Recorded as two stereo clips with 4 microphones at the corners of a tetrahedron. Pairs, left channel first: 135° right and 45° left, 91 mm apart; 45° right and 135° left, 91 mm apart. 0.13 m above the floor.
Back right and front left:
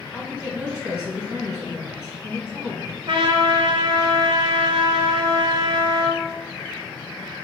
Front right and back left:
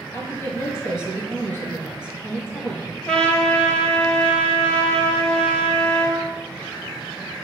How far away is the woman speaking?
About 1.2 m.